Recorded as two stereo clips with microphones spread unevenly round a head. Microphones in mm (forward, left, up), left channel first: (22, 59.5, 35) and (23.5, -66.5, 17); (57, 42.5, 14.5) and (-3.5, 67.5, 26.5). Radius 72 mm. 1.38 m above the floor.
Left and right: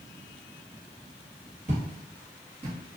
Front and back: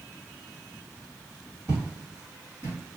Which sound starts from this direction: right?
Footsteps, at 1.7 s.